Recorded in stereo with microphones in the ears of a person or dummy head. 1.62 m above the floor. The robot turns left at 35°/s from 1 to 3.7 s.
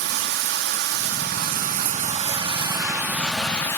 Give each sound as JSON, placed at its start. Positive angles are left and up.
{"t": 0.0, "sound": "running water", "azimuth_deg": -95, "distance_m": 1.0}